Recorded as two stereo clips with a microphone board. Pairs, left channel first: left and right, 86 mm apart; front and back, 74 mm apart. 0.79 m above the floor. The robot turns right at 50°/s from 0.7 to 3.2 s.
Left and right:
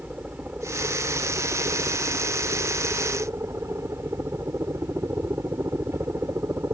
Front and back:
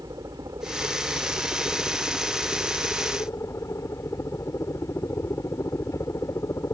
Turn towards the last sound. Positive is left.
turn(degrees=-35)